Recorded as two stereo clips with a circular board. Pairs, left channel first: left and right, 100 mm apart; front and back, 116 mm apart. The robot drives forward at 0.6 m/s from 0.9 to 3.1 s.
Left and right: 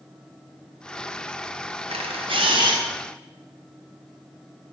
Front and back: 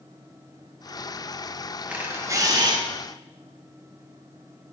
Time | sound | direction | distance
1.9 | a camera shutter | 100° right | 0.9 m